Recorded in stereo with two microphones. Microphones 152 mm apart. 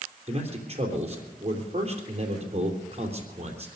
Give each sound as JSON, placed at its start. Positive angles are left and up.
{"t": 0.3, "sound": "a man speaking", "side_deg": -40, "distance_m": 3.0}